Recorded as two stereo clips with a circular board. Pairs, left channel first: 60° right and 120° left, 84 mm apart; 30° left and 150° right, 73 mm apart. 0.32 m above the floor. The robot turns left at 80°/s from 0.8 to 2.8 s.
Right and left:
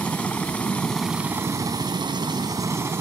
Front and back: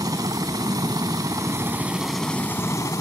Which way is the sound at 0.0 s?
135° right.